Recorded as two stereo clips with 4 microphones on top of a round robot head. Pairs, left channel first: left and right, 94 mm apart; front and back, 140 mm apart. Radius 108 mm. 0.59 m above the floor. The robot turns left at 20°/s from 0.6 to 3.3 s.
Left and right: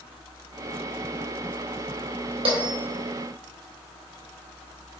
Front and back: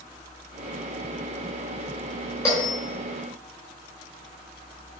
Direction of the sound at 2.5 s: 70° right.